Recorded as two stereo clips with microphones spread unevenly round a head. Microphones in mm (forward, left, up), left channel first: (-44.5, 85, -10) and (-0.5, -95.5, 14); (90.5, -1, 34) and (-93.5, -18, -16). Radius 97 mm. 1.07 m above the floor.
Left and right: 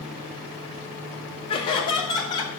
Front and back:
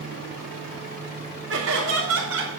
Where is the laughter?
165° left, 4.5 m; by 2.5 s 175° left, 5 m.